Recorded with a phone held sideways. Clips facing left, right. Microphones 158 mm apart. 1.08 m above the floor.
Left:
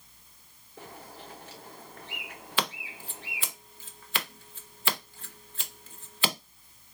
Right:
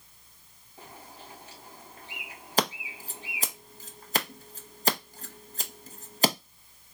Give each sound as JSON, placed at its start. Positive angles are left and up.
{"t": 0.8, "sound": "a bird", "side_deg": 70, "distance_m": 2.0}
{"t": 2.6, "sound": "scissors", "side_deg": -40, "distance_m": 0.5}